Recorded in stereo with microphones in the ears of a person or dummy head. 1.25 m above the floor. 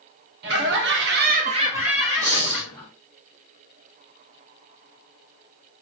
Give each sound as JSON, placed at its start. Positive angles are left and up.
{"t": 0.4, "sound": "laughter", "side_deg": -60, "distance_m": 1.0}
{"t": 2.2, "sound": "breathing", "side_deg": -35, "distance_m": 1.5}